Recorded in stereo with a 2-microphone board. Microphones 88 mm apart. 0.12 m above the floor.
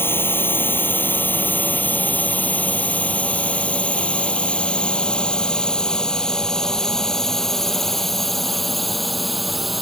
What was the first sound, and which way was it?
A drone, 25° left (ahead or behind).